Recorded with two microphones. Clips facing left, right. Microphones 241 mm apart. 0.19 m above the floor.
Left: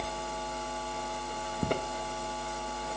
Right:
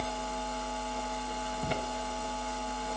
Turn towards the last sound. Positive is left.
turn(degrees=55)  # may be behind; listen again after turning